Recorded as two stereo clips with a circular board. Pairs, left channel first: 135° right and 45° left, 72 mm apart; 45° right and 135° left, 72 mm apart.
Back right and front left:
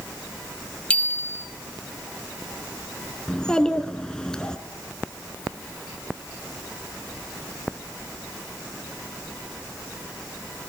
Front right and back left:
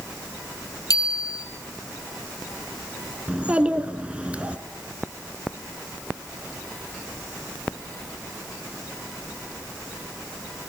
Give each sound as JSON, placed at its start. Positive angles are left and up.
{"t": 0.9, "sound": "a bicycle bell", "azimuth_deg": -65, "distance_m": 2.0}
{"t": 3.3, "sound": "a child speaking", "azimuth_deg": 170, "distance_m": 1.1}